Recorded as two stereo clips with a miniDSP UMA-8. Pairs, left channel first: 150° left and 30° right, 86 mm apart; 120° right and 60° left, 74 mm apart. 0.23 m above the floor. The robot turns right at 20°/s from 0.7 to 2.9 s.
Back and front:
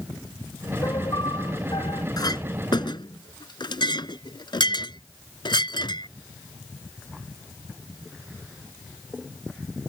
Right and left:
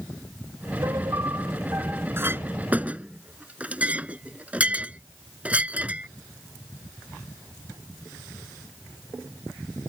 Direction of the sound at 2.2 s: 115° left.